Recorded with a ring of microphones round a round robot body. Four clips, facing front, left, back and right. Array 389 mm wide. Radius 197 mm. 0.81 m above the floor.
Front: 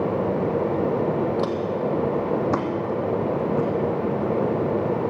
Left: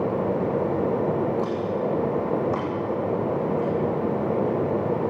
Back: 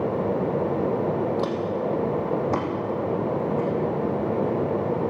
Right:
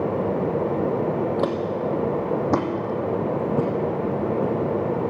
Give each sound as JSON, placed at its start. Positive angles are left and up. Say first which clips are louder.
{"t": 1.4, "sound": "footsteps", "louder": "right 1 dB, front 1 dB", "azimuth_deg": -85, "distance_m": 1.8}